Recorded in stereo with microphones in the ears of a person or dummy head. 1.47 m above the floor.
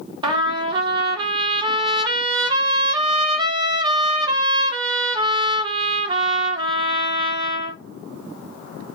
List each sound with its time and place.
0.2 s a trumpet: 25° right (ahead or behind), 0.6 m